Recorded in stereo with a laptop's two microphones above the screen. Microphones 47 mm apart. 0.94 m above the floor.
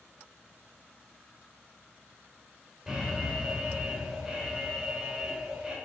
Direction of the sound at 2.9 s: Centre (ahead or behind).